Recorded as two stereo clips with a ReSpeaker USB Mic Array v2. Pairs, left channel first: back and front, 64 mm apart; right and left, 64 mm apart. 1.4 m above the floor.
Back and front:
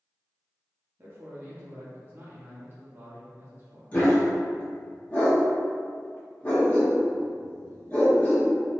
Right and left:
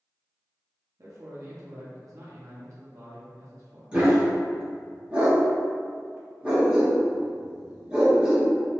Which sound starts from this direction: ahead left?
A man speaking, at 1.0 s.